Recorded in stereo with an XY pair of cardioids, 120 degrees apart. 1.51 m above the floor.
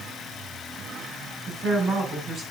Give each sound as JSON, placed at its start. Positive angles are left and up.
{"t": 1.5, "sound": "a woman speaking", "azimuth_deg": -25, "distance_m": 7.0}